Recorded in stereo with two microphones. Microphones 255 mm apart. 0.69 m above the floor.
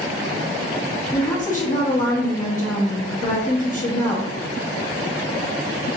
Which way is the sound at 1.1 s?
30° left (ahead or behind).